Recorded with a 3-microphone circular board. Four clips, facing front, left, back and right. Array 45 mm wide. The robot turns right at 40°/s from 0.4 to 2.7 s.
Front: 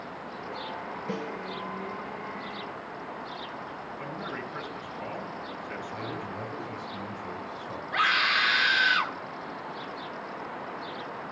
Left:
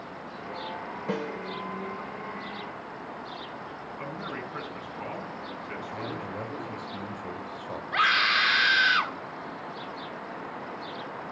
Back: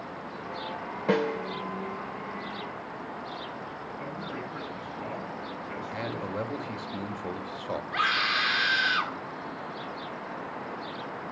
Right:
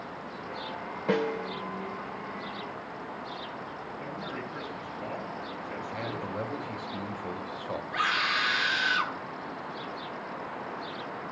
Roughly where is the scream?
Left.